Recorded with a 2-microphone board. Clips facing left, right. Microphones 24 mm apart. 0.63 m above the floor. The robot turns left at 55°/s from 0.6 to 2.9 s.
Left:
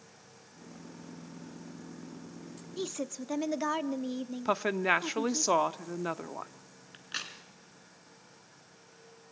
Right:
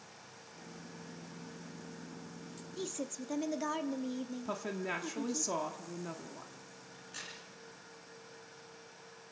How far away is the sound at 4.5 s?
About 0.9 m.